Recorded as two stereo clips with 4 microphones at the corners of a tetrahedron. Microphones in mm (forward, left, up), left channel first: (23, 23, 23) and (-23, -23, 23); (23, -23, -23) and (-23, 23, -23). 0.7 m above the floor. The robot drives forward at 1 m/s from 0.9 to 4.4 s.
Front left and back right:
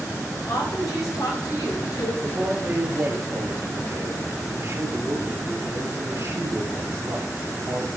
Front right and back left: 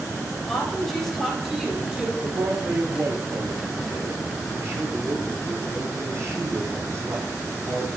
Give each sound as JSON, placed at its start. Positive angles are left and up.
{"t": 0.5, "sound": "a woman speaking", "azimuth_deg": 45, "distance_m": 4.5}
{"t": 2.2, "sound": "a man speaking", "azimuth_deg": 170, "distance_m": 2.5}